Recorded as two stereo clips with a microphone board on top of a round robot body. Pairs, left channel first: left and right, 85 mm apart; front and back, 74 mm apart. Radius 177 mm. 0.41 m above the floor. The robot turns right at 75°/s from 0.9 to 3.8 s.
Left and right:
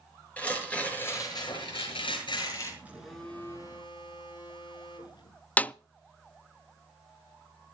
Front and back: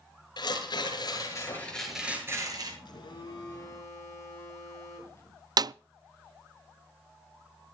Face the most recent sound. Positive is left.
turn(degrees=160)